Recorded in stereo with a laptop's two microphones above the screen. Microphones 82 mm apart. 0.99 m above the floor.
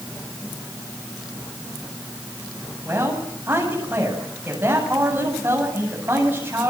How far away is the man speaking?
About 8.5 m.